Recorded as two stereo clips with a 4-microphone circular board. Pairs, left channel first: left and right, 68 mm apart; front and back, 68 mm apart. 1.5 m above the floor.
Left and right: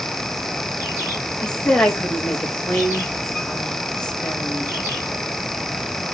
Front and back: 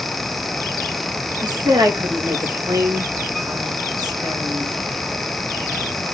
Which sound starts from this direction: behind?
A woman speaking, at 1.4 s.